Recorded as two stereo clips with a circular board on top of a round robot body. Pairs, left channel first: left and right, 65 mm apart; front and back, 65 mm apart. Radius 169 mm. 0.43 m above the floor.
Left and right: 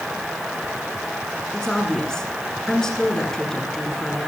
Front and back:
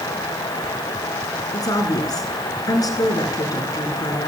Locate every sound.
1.5 s a woman speaking: 10° left, 8 m